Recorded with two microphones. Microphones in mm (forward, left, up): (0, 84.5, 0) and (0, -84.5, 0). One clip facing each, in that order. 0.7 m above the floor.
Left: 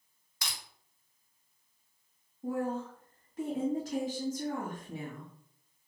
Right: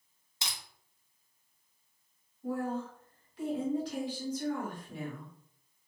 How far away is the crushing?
About 0.6 m.